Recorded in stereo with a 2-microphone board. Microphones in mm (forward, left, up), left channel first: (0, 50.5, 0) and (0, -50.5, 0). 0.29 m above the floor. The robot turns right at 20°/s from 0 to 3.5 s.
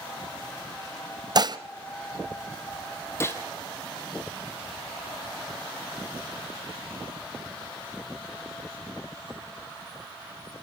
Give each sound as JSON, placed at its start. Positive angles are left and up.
{"t": 1.4, "sound": "dishes clattering", "side_deg": -45, "distance_m": 0.8}
{"t": 3.2, "sound": "a gunshot", "side_deg": 25, "distance_m": 2.0}